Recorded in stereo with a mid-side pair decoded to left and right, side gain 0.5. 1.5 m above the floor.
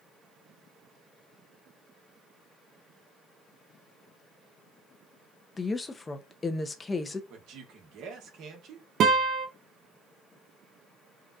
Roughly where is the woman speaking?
Ahead left.